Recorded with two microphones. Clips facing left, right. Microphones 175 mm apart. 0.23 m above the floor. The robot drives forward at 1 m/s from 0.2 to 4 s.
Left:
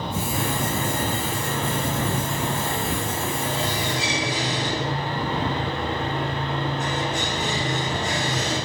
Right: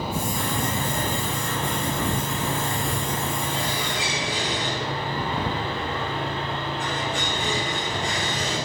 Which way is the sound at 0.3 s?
60° left (ahead or behind).